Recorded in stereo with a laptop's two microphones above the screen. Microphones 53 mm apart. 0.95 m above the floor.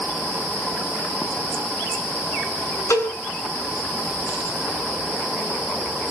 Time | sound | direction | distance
2.9 | a cowbell | 60° left (ahead or behind) | 7.5 m